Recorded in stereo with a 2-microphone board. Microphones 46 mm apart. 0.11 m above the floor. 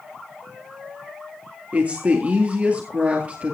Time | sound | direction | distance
1.7 | a woman speaking | 30° right (ahead or behind) | 2 m